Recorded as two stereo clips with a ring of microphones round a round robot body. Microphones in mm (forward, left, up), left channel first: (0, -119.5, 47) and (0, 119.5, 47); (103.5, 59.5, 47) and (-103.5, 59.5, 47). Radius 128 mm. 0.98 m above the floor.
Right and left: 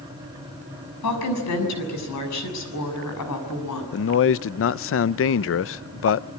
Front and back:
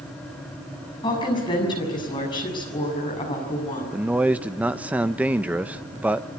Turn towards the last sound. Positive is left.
turn(degrees=-100)